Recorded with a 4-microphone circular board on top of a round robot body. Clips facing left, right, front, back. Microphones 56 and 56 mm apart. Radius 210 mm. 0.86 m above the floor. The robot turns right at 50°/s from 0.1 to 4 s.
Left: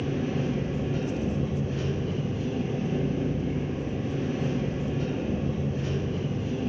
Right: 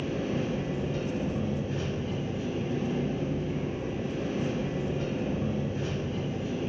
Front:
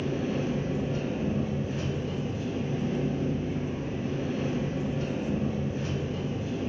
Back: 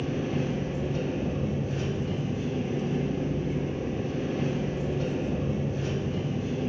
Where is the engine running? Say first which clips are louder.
Left 2 dB, even; straight ahead, 1.5 m; by 6.7 s 165° right, 1.5 m.